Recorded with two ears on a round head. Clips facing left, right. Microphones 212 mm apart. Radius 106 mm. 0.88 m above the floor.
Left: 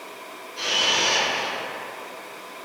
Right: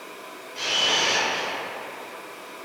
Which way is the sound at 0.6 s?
55° right (ahead or behind).